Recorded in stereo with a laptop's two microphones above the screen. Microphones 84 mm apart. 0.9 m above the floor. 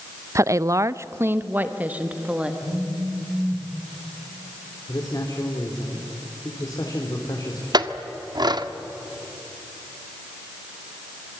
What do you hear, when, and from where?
0.3 s a woman speaking: 35° right (ahead or behind), 0.5 m; by 2.5 s 15° right (ahead or behind), 1.3 m
2.6 s a phone buzzing: 30° right (ahead or behind), 8 m
4.9 s a man speaking: 50° left (ahead or behind), 3.5 m
7.7 s a clink: 55° right (ahead or behind), 1.3 m